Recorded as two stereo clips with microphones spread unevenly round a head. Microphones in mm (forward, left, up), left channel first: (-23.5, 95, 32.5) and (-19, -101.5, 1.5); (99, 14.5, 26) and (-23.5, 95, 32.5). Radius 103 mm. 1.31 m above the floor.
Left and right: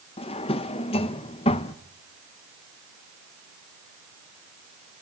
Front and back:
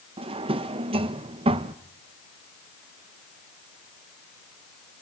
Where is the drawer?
120° left, 0.5 m.